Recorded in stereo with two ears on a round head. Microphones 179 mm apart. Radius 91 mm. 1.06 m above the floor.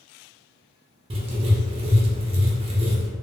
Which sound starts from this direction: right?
Writing, at 1.1 s.